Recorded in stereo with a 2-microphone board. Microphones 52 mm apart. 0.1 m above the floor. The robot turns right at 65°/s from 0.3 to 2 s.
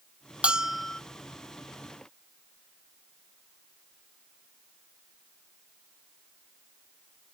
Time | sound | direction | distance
0.4 | a bell | 20° right | ?